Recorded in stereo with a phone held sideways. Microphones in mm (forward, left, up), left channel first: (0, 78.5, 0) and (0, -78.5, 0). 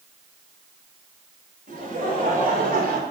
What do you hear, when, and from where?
1.7 s laughter: 55° right (ahead or behind), 5.5 m; by 3.0 s 65° right (ahead or behind), 4 m